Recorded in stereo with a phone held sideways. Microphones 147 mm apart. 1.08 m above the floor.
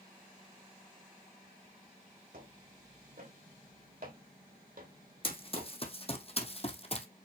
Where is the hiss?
No hiss in this recording.